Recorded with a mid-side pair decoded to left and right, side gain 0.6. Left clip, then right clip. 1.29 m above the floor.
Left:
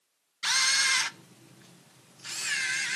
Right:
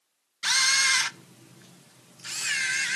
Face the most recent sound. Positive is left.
turn(degrees=-15)